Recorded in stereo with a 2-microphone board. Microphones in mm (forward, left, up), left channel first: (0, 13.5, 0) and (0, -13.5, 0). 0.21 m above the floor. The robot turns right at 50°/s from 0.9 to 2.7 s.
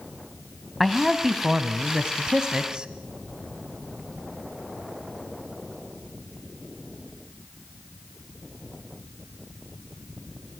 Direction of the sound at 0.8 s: Centre (ahead or behind).